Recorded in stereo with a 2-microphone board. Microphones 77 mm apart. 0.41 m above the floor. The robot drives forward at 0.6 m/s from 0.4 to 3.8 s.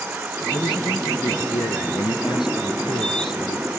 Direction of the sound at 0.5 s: 80° left.